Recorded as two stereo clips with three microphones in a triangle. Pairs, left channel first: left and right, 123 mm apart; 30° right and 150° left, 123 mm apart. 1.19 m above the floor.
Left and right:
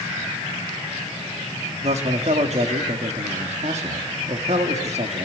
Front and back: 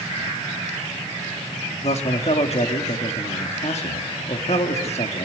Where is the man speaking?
60° right, 1.8 m.